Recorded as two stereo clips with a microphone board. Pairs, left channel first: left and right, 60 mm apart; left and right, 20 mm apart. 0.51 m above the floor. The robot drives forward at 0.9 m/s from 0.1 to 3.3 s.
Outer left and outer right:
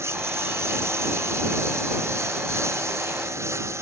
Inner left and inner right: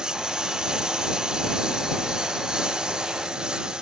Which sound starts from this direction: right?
A lawn mower, at 0.0 s.